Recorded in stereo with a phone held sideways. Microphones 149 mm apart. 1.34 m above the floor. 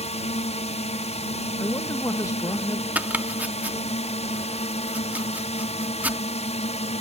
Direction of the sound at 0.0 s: 45° left (ahead or behind).